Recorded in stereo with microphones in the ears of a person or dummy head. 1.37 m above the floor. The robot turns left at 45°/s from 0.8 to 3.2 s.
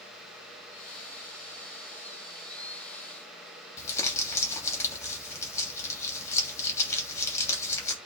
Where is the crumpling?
15° left (ahead or behind), 3 m.